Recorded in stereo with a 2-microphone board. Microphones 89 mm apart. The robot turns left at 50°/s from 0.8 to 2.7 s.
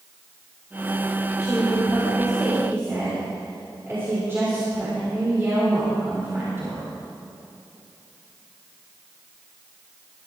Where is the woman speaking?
40° left, 5 m; by 6.9 s 30° right, 5 m.